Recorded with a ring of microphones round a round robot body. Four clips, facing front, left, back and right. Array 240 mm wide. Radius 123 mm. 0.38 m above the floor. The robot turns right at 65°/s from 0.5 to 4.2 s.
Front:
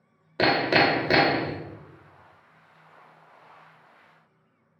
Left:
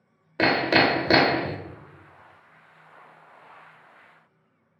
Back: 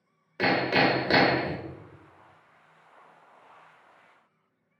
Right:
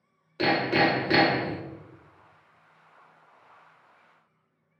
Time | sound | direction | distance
0.4 | hammering | 45° left | 0.5 m